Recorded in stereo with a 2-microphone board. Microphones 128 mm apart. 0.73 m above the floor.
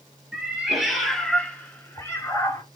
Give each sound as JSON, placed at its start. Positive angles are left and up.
{"t": 0.3, "sound": "a cat meowing", "side_deg": -5, "distance_m": 1.1}